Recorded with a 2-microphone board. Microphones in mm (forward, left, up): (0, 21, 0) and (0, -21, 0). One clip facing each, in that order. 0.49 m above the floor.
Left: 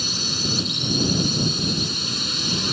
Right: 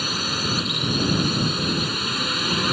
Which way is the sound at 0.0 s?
30° right (ahead or behind).